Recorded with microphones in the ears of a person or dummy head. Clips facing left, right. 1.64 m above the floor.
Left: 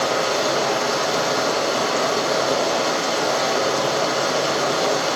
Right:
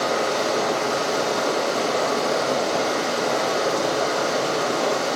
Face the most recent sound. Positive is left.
turn(degrees=70)  # may be behind; listen again after turning